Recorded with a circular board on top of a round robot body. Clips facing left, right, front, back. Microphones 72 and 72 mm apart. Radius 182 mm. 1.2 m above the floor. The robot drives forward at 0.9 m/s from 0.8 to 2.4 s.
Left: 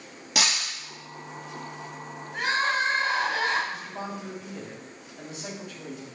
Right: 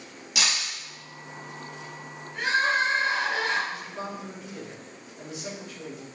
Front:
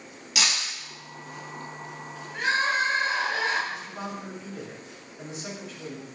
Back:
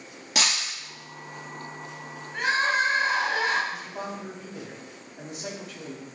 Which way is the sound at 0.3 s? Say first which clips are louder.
Left 2 dB, back 1 dB; 130° left.